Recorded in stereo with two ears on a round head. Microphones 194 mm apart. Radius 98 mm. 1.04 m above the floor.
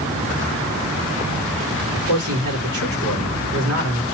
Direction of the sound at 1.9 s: 70° right (ahead or behind).